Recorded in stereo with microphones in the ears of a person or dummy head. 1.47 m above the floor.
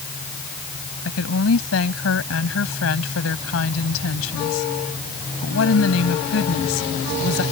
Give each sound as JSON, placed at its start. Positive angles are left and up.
{"t": 1.1, "sound": "a woman speaking", "side_deg": 90}